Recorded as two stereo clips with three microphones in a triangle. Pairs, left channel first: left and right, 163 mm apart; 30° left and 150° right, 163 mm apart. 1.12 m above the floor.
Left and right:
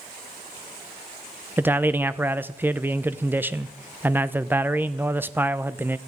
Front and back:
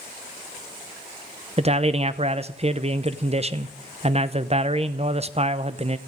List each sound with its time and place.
1.6 s a man speaking: 160° right, 0.7 m